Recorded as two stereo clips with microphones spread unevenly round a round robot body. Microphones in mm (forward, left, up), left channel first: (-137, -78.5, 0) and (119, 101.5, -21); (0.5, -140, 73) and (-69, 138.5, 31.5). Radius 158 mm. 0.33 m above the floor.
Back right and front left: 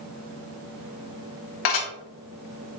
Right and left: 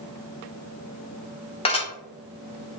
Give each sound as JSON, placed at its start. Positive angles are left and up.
{"t": 1.6, "sound": "dishes clattering", "azimuth_deg": -150, "distance_m": 1.4}